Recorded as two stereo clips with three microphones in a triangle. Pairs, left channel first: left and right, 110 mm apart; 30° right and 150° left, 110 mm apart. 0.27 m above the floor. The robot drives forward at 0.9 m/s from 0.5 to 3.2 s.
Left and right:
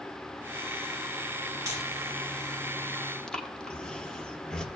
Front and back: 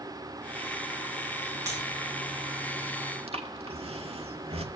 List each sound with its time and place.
1.7 s breaking glass: 150° right, 5.5 m
3.3 s breathing: 170° left, 0.9 m